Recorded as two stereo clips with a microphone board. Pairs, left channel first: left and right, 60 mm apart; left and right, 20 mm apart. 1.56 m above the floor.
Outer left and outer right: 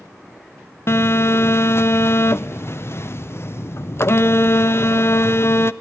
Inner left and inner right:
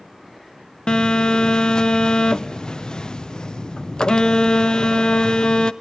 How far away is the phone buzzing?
About 0.5 m.